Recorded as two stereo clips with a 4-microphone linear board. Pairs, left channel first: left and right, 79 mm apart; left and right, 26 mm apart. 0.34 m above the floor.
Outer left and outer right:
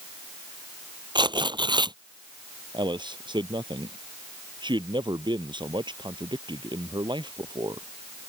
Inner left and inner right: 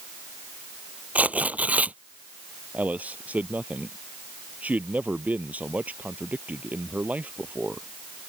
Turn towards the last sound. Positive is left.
turn(degrees=-80)